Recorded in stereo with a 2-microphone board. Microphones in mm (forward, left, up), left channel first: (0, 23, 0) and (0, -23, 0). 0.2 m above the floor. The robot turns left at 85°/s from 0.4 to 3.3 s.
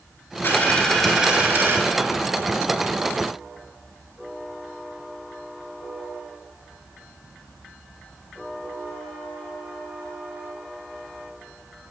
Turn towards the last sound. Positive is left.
turn(degrees=170)